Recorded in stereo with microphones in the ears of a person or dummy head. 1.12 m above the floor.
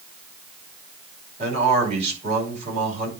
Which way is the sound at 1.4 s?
50° right (ahead or behind).